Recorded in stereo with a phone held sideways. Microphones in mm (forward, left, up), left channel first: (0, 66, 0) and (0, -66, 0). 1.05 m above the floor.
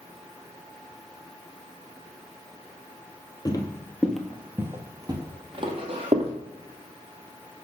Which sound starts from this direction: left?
Footsteps, at 3.5 s.